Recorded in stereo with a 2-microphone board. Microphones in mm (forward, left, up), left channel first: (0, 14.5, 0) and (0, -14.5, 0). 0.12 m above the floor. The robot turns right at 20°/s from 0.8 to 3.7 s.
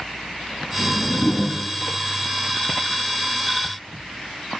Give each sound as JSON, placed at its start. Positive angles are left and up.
{"t": 0.8, "sound": "a whoosh", "side_deg": 70, "distance_m": 6.0}